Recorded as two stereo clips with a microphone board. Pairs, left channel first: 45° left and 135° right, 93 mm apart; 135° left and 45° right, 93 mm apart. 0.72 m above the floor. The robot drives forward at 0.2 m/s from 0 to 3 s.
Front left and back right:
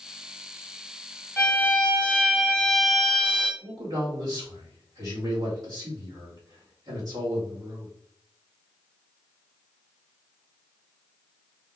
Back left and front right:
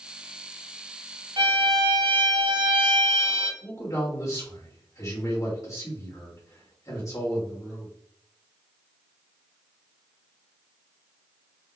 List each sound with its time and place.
1.4 s a violin: 30° right, 1.1 m; by 3.5 s 40° right, 0.8 m
3.6 s a man speaking: straight behind, 2 m